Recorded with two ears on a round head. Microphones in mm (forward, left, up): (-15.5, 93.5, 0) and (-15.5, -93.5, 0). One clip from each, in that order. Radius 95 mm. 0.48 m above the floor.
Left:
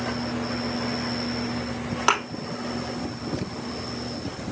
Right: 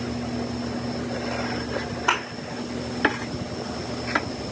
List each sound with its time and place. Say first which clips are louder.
2.1 s a thud: left 1 dB; 65° left (ahead or behind), 2.5 m